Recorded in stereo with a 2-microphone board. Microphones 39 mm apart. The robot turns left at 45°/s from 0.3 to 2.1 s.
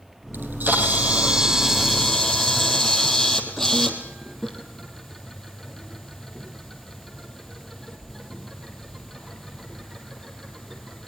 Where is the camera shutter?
70° right (ahead or behind), 3.5 m; by 11.1 s 5° left (ahead or behind), 3.5 m.